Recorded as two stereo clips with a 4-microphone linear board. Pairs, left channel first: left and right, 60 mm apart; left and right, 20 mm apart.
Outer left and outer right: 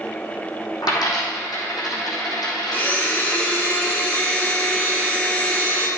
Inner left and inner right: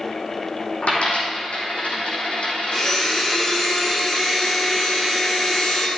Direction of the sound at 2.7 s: 25° left (ahead or behind).